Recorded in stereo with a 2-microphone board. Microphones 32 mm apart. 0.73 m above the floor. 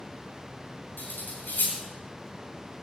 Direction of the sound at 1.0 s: 75° left (ahead or behind).